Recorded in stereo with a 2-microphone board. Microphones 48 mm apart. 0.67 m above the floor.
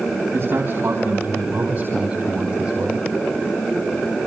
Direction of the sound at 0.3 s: 50° right (ahead or behind).